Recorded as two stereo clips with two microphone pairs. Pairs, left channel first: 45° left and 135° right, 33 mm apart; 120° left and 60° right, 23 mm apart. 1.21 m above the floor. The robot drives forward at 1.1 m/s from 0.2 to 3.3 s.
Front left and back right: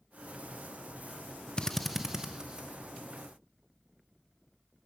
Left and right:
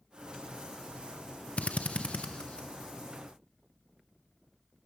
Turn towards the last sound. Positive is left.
turn(degrees=165)